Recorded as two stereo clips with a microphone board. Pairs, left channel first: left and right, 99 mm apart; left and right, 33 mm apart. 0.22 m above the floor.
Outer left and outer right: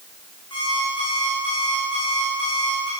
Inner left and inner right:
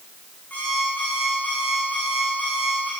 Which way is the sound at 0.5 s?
50° left (ahead or behind).